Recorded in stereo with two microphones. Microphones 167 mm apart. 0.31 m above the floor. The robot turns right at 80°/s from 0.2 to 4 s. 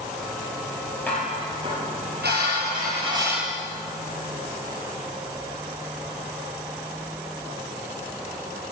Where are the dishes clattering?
170° left, 4.5 m; by 3.6 s 10° left, 4.5 m.